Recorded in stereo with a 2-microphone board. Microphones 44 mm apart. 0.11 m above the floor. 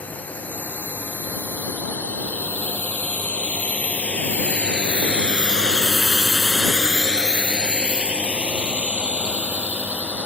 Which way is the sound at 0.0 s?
30° left (ahead or behind).